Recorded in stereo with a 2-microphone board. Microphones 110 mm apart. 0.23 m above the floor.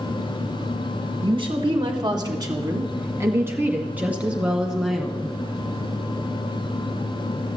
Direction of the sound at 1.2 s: 50° right (ahead or behind).